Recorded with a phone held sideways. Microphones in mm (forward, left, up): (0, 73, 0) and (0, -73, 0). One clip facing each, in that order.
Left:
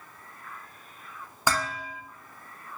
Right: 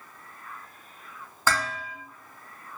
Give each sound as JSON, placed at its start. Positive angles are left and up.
{"t": 1.5, "sound": "dishes clattering", "side_deg": 15, "distance_m": 1.0}